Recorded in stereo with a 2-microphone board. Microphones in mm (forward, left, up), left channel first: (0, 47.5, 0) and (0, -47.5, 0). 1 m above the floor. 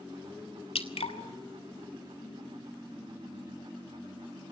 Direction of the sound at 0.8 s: 85° left.